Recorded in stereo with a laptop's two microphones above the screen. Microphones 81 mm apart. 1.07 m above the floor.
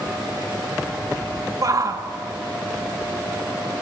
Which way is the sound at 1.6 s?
45° right (ahead or behind).